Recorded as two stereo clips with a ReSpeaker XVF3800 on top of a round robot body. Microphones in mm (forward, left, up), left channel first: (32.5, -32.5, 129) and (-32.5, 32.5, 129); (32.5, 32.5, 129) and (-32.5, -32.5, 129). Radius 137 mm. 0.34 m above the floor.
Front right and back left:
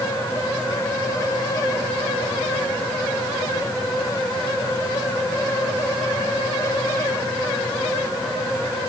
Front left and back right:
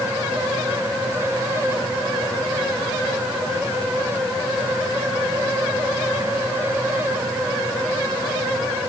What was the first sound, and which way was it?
Only background noise.